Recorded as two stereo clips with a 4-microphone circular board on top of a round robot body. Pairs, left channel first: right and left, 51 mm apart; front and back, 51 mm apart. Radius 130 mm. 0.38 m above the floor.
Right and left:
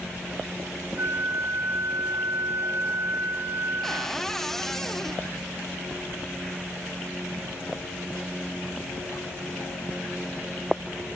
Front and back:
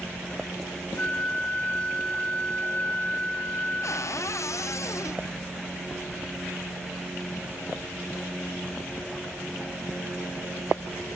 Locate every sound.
1.0 s a flute: 60° left, 1.4 m
3.8 s a cupboard door: 5° right, 0.6 m